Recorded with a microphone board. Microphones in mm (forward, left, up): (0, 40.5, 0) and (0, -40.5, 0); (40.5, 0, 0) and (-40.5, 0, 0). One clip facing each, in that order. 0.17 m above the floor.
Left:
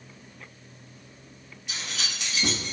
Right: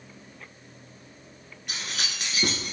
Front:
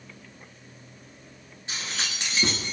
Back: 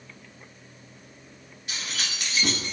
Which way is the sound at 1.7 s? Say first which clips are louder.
Right 1 dB, front 1 dB; 60° right.